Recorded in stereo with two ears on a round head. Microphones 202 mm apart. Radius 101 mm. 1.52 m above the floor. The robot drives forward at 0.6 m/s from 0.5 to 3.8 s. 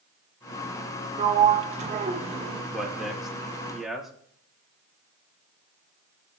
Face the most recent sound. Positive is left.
turn(degrees=0)  # may be behind; listen again after turning